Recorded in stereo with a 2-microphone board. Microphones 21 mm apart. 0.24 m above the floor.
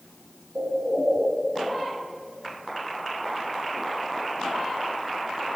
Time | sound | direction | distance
0.6 | a bird | 40° right (ahead or behind) | 0.6 m